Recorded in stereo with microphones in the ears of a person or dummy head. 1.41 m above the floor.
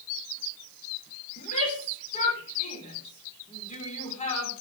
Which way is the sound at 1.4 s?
30° left (ahead or behind).